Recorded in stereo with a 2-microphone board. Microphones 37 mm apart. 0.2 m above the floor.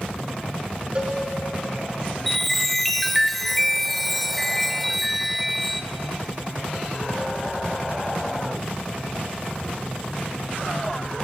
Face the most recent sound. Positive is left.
turn(degrees=5)  # may be behind; listen again after turning